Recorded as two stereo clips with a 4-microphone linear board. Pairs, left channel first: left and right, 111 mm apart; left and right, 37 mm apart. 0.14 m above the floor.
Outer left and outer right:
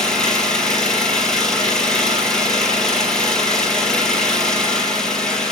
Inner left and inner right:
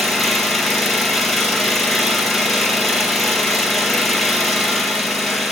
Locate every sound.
0.0 s an engine running: 5° left (ahead or behind), 3.5 m